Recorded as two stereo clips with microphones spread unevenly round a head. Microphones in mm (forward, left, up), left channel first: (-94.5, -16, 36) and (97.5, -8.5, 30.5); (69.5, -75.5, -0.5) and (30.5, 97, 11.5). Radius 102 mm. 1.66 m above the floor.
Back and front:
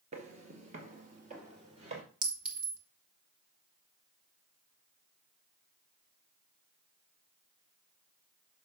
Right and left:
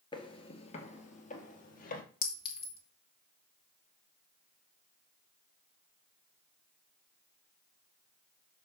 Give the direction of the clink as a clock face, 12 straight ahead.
1 o'clock.